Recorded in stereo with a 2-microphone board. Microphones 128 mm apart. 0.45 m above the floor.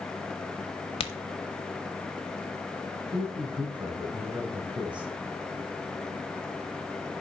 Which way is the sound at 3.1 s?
35° right (ahead or behind).